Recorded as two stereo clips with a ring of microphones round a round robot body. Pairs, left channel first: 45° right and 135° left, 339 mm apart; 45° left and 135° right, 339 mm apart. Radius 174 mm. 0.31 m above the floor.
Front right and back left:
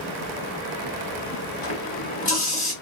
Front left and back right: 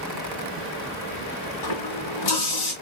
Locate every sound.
1.6 s a running tap: 25° left, 1.7 m